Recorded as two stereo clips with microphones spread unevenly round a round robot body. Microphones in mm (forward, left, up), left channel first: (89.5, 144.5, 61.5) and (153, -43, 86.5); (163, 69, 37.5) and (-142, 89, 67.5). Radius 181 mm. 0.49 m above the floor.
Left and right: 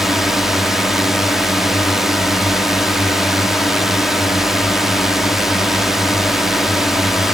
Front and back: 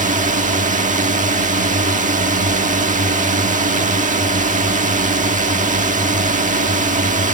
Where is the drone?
Straight behind.